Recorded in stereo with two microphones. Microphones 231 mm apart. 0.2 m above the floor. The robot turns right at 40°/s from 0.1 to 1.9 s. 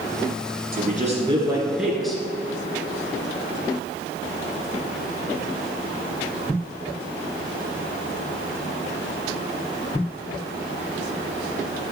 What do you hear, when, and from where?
0.7 s a man speaking: 45° right, 2.5 m; by 2.2 s straight ahead, 2.5 m